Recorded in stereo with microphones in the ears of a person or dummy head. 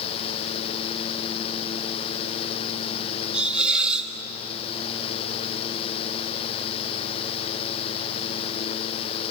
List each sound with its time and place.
3.3 s a hiss: 5° right (ahead or behind), 2 m